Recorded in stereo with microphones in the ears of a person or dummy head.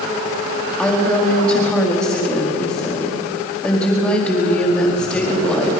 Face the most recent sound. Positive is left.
turn(degrees=5)  # may be behind; listen again after turning